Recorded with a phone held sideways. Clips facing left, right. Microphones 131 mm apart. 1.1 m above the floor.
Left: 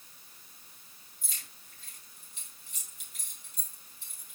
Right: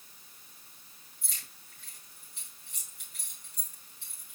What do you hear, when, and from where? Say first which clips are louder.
1.2 s keys jangling: even; 75° right (ahead or behind), 5 m